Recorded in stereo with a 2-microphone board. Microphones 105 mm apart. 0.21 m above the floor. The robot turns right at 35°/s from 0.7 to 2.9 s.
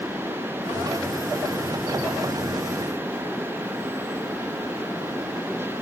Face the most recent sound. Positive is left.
No sound to turn to.